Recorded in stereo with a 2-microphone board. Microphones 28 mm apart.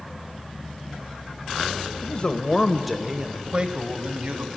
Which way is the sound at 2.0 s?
50° left (ahead or behind).